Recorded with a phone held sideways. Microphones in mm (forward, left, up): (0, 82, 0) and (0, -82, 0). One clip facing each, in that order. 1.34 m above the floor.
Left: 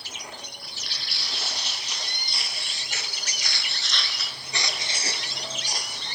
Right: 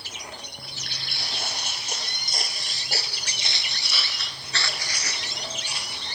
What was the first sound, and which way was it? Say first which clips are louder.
Footsteps: right 1 dB; 55° right (ahead or behind).